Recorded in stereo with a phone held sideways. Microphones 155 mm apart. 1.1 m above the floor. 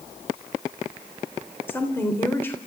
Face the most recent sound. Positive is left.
turn(degrees=15)  # may be behind; listen again after turning